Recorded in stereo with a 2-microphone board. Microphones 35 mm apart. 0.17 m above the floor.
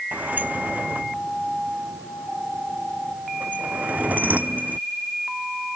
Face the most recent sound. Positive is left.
turn(degrees=-55)  # may be behind; listen again after turning